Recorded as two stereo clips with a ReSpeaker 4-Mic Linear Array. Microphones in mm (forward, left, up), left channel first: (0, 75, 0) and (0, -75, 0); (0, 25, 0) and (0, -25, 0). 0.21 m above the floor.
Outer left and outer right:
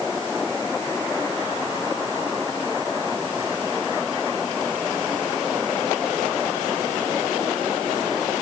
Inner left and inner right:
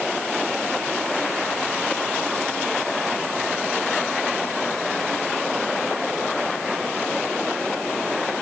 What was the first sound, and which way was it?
Only background noise.